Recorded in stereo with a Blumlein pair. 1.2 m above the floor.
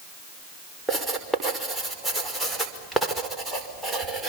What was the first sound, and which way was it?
Writing, 5° right.